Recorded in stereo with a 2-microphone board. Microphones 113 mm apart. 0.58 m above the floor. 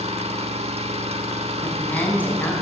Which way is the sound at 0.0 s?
70° right (ahead or behind).